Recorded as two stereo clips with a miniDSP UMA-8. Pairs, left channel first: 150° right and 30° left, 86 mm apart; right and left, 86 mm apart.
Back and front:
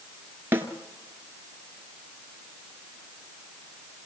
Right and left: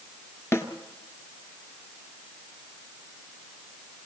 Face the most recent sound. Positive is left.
turn(degrees=-35)